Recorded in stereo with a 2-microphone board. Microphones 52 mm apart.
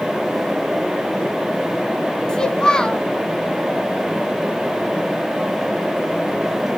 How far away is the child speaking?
About 0.7 m.